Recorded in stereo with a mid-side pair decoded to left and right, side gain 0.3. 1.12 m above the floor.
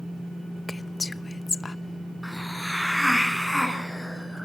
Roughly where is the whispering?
Ahead left.